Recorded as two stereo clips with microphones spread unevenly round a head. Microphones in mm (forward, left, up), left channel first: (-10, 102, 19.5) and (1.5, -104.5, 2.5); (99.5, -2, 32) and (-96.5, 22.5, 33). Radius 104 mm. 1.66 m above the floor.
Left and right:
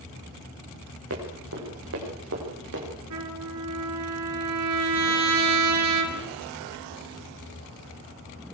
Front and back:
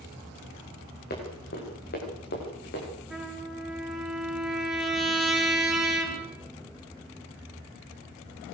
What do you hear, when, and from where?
1.1 s running footsteps: 55° right, 9.5 m; by 2.9 s 50° right, 10.5 m
3.1 s a trumpet: 100° right, 5 m